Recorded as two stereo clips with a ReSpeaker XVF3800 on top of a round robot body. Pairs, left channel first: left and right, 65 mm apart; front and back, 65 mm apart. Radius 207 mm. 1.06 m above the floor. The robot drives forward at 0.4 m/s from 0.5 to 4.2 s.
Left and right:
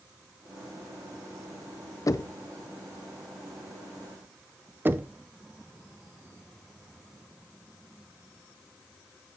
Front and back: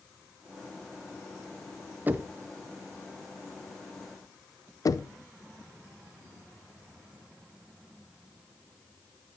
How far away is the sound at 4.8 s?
About 0.6 m.